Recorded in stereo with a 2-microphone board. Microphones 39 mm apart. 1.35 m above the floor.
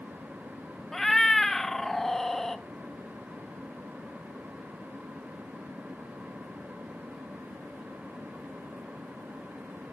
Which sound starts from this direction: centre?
A cat meowing, at 0.9 s.